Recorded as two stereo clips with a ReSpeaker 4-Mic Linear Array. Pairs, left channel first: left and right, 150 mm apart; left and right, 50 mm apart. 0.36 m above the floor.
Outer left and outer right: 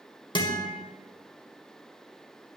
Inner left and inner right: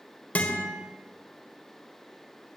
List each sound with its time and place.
0.3 s a guitar: 30° left (ahead or behind), 1.6 m